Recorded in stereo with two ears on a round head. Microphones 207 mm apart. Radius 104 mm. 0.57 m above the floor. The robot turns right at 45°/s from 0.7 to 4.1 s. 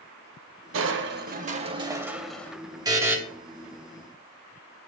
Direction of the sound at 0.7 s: 70° right.